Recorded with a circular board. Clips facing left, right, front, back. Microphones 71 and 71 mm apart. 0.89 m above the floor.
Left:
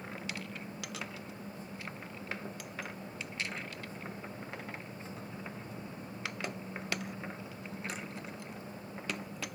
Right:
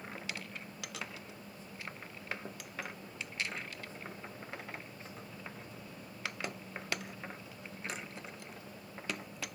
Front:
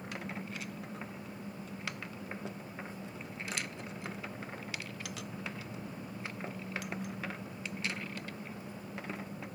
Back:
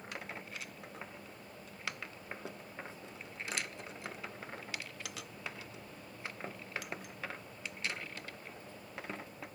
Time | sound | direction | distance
0.0 | an engine running | 25° left | ?